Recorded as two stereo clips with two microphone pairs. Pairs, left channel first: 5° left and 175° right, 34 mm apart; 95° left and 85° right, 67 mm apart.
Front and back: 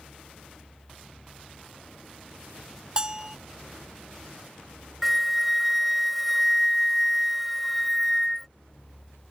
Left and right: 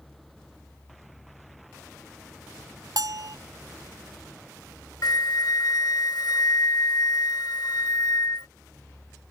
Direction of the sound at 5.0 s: 90° left.